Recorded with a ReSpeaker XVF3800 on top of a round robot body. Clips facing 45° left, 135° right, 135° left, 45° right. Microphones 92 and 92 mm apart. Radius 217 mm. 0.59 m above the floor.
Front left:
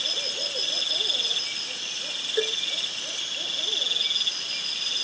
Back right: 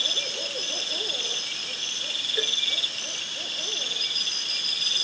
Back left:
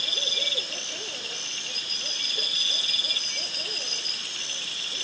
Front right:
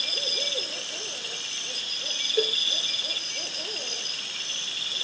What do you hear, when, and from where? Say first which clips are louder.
2.4 s a cowbell: front left 6 dB, front right 15 dB; 20° right